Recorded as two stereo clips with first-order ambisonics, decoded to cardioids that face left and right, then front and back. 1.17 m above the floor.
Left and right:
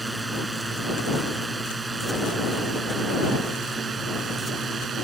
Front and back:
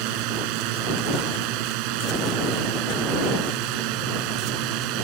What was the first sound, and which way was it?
A drone, 170° right.